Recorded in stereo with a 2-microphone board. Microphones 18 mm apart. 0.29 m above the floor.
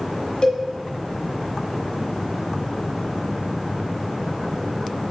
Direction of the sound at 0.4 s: 45° left (ahead or behind).